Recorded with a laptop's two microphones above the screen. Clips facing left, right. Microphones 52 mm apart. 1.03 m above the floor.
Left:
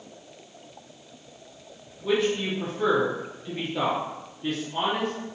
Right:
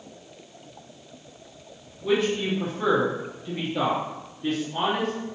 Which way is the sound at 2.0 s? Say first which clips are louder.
Right 1 dB; 5° left (ahead or behind).